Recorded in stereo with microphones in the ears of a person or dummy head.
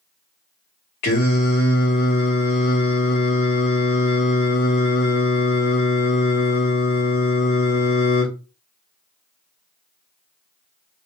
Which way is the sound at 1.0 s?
45° left (ahead or behind).